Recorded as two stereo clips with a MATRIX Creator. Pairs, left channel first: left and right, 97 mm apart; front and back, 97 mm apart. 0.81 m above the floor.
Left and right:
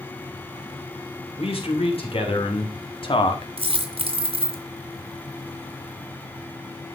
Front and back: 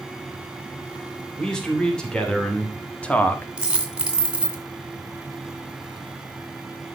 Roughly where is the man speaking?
Left.